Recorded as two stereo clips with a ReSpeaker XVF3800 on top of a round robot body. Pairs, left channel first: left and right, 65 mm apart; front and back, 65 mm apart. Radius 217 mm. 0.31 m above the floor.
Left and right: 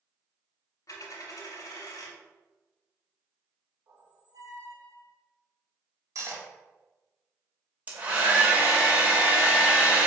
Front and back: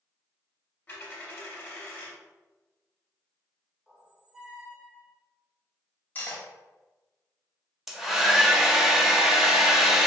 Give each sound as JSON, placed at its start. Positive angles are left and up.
{"t": 0.9, "sound": "a dropped coin", "azimuth_deg": 65, "distance_m": 0.6}
{"t": 3.9, "sound": "a squeak", "azimuth_deg": -100, "distance_m": 1.0}
{"t": 6.2, "sound": "cutlery clinking", "azimuth_deg": -55, "distance_m": 1.7}
{"t": 7.9, "sound": "a hair dryer", "azimuth_deg": -100, "distance_m": 1.1}